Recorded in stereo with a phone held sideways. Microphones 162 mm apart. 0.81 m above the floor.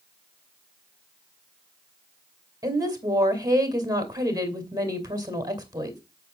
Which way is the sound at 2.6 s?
25° right (ahead or behind).